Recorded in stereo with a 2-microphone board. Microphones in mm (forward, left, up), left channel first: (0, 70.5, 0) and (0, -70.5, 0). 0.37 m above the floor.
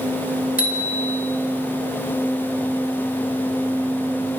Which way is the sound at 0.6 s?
80° left.